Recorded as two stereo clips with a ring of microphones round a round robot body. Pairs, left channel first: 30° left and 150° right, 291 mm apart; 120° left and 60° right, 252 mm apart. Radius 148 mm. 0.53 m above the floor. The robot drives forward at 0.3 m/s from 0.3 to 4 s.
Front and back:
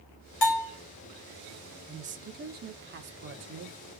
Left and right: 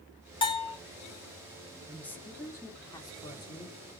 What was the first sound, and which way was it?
A bell, 50° left.